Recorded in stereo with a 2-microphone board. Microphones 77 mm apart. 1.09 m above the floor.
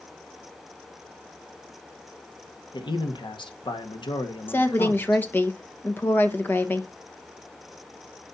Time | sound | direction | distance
2.7 | a man speaking | 75° left (ahead or behind) | 1.4 m
4.5 | a woman speaking | 25° left (ahead or behind) | 1.3 m